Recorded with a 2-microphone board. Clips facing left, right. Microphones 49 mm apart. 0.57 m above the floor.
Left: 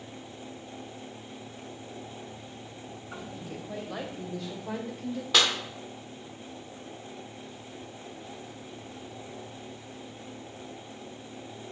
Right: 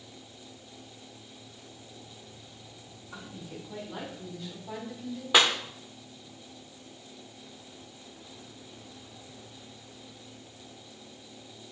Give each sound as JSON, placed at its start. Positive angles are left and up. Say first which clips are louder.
{"t": 3.1, "sound": "a woman speaking", "louder": "left 2 dB", "side_deg": 70, "distance_m": 3.5}
{"t": 5.3, "sound": "a clap", "louder": "right 2 dB", "side_deg": -15, "distance_m": 0.9}